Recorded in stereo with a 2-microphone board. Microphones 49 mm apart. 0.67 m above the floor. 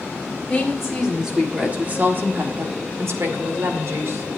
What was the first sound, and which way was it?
A woman speaking, 5° left (ahead or behind).